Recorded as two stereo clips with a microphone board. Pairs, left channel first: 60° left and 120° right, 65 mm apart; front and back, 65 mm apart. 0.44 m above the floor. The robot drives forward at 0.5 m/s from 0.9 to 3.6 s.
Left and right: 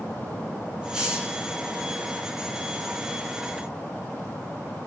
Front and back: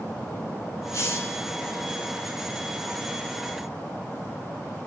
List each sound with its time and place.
0.9 s a hiss: 40° right, 1.0 m; by 1.4 s 55° right, 0.8 m